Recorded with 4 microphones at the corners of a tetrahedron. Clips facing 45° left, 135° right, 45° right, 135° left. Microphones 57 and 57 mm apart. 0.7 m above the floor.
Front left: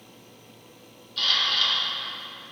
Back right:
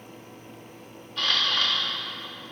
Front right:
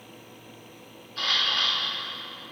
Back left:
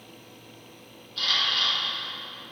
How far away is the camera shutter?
About 1.5 m.